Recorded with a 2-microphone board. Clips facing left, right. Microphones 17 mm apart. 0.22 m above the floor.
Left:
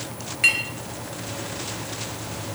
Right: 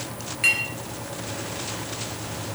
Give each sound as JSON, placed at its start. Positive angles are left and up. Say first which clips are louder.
{"t": 0.4, "sound": "a clink", "louder": "left 1 dB", "side_deg": 10, "distance_m": 2.0}